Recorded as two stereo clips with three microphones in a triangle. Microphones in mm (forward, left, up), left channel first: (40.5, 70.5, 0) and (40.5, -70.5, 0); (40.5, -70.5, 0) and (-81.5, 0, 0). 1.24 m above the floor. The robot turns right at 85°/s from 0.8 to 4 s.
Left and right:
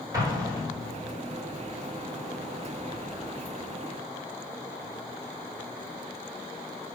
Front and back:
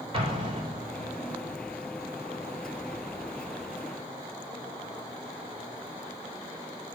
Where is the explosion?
160° right, 4.5 m; by 1.1 s 135° right, 4.5 m.